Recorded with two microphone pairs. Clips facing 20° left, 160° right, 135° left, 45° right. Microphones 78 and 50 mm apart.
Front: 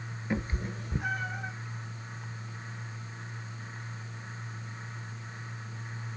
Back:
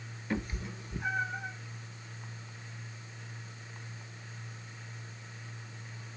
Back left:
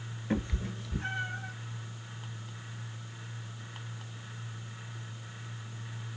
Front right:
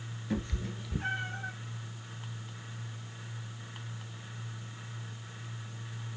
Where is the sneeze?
No sneeze in this recording.